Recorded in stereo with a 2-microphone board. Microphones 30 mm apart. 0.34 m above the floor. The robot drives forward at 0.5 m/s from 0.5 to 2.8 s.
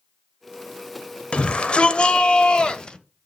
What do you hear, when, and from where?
1.3 s a shout: 40° left (ahead or behind), 1.0 m; by 3.0 s 35° left (ahead or behind), 1.2 m